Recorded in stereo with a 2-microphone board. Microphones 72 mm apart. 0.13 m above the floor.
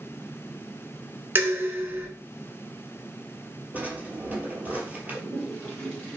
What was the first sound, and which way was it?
Dishes clattering, 30° right (ahead or behind).